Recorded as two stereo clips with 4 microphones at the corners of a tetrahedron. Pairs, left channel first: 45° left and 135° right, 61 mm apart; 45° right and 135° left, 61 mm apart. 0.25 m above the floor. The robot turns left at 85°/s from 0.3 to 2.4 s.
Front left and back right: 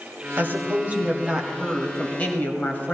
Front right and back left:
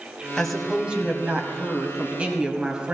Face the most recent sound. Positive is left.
turn(degrees=70)